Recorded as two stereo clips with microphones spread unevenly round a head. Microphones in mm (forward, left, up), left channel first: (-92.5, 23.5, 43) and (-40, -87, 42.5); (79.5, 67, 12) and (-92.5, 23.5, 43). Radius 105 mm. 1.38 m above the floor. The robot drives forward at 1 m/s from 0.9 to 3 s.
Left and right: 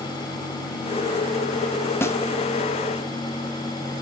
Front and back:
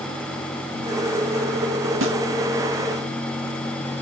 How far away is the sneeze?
No sneeze in this recording.